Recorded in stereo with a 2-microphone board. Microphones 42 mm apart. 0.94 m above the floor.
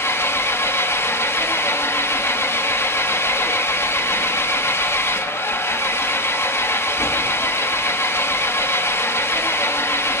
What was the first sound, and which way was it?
An engine running, 80° left.